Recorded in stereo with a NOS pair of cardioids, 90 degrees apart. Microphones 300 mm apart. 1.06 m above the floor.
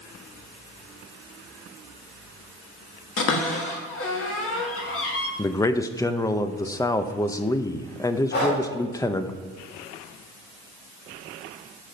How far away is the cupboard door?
About 1.7 m.